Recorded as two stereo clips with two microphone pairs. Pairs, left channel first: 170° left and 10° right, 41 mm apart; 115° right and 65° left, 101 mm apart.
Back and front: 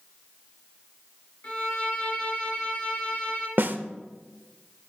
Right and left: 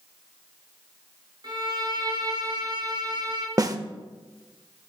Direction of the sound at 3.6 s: 15° left.